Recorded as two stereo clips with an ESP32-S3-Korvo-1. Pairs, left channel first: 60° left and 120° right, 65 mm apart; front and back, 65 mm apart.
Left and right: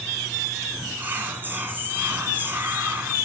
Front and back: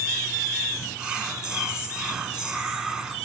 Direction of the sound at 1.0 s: 115° right.